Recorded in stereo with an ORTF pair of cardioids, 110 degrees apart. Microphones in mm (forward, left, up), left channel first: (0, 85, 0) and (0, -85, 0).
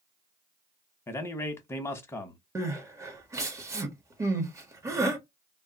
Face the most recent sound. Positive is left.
turn(degrees=-20)